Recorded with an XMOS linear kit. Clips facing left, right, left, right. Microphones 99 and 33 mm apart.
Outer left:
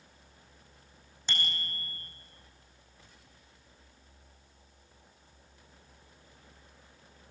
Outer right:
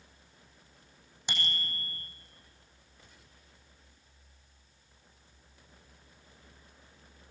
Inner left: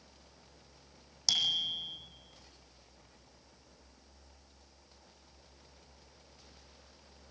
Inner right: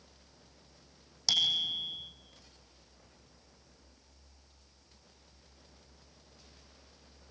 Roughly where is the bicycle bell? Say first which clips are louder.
Even, inner right 2 dB; centre.